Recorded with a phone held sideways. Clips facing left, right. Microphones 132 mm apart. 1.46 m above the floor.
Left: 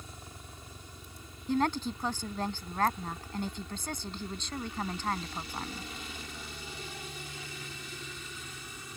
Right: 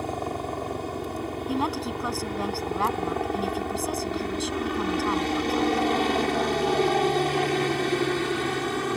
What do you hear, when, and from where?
0.0 s a helicopter: 70° right (ahead or behind); by 9.0 s 75° right (ahead or behind)
1.5 s a woman speaking: 10° right (ahead or behind)